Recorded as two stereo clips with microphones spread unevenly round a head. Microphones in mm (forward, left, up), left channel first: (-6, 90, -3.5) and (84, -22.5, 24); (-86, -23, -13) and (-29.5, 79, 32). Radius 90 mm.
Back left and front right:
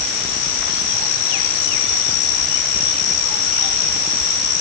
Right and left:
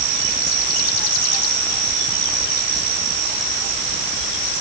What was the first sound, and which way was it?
Only background noise.